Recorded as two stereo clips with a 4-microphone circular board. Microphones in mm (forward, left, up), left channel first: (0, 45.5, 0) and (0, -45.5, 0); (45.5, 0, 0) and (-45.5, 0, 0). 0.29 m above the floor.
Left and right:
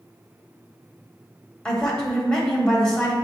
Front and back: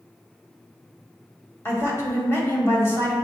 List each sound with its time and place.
1.6 s a woman speaking: 20° left, 1.2 m